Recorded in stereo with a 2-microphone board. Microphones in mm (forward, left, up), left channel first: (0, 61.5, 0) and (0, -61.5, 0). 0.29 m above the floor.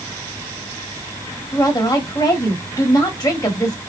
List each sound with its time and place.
1.5 s a woman speaking: 35° left (ahead or behind), 1.5 m